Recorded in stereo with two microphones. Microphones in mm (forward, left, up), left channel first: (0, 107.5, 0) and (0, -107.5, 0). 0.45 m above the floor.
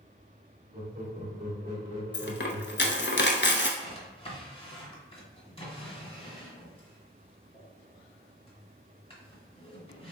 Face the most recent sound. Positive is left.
turn(degrees=25)  # may be behind; listen again after turning